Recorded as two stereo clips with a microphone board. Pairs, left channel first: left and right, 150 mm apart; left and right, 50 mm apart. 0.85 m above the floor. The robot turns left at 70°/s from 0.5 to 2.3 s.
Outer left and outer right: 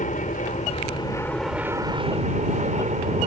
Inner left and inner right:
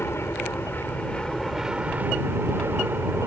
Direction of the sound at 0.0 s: 70° left.